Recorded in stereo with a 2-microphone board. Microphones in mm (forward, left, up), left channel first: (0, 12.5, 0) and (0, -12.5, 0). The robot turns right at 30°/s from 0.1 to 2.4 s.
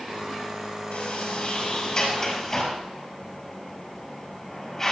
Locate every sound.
0.9 s a sliding door: 65° left (ahead or behind), 5.5 m; by 4.9 s 20° left (ahead or behind), 5.5 m